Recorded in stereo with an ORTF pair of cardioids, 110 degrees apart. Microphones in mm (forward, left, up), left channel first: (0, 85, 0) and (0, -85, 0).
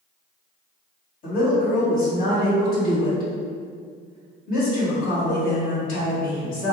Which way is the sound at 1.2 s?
60° left.